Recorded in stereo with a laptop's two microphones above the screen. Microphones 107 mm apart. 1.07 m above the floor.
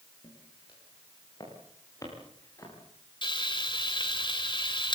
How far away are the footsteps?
About 9 m.